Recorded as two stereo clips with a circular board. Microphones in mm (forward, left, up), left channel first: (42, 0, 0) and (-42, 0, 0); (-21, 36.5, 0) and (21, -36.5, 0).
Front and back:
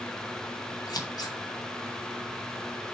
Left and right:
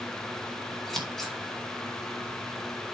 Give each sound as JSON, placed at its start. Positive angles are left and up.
{"t": 0.9, "sound": "scissors", "azimuth_deg": 35, "distance_m": 2.0}